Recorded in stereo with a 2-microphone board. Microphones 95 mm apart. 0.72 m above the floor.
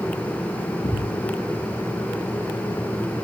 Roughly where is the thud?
Left.